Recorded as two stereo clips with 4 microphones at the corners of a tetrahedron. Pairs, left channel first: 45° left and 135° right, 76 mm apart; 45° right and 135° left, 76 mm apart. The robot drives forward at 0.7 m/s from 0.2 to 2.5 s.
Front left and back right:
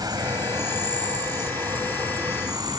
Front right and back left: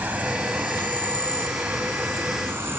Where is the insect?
155° right; by 2.8 s 165° right.